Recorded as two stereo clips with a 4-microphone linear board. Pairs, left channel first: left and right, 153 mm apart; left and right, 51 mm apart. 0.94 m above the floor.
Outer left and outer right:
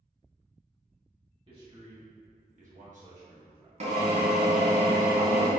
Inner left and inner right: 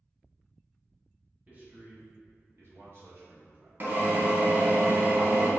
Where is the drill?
45° right (ahead or behind), 0.9 m.